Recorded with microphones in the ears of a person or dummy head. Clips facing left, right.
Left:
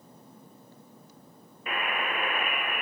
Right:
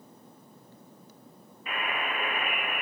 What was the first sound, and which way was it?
A buzzer, 50° left (ahead or behind).